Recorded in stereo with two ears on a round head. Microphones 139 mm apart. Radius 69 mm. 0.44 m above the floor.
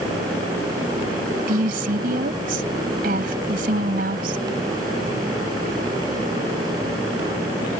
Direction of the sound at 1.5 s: 60° right (ahead or behind).